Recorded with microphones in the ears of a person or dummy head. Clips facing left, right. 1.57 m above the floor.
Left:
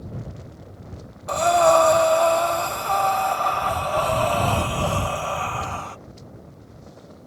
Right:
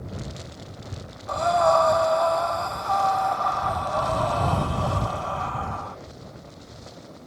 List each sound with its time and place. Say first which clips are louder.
1.3 s breathing: left 4 dB; 45° left (ahead or behind)